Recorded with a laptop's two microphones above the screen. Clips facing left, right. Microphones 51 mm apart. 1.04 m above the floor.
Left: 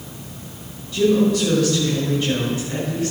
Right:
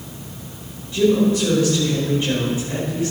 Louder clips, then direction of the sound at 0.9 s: Even; 25° right (ahead or behind).